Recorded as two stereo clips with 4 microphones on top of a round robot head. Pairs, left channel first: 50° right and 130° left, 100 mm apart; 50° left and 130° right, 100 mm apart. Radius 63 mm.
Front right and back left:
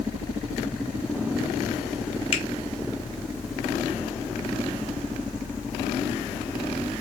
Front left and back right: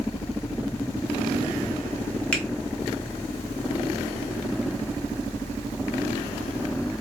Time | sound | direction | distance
2.3 | a finger snap | 30° right | 3 m